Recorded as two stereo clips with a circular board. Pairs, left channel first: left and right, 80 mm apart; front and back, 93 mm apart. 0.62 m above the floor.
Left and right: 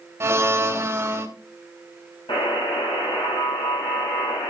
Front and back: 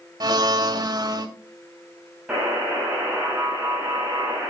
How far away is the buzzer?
About 4 m.